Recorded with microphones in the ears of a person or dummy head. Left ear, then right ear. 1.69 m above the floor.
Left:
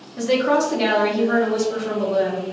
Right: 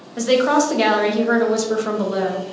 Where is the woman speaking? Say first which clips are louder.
Right 2 dB; 75° right (ahead or behind), 0.9 m.